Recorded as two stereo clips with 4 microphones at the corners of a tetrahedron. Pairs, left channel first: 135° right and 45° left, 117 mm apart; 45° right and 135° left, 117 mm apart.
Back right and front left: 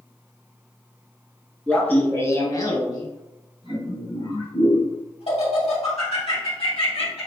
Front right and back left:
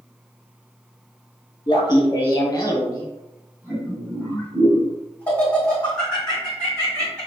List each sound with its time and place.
1.7 s laughter: 60° right, 1.5 m; by 7.3 s 130° right, 4.5 m